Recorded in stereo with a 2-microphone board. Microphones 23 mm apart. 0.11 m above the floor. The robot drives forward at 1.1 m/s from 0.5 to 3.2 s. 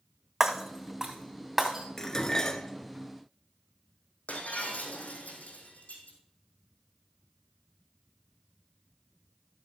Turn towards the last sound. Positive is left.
turn(degrees=75)  # may be behind; listen again after turning